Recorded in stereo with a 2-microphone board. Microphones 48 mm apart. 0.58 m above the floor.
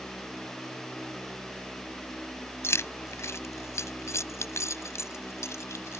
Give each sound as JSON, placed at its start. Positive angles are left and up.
{"t": 2.6, "sound": "keys jangling", "side_deg": 65}